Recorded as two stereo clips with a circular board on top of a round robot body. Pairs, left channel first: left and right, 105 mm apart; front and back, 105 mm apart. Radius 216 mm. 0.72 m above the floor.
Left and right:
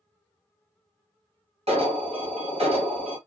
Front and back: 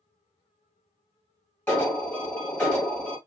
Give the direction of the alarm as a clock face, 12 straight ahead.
2 o'clock.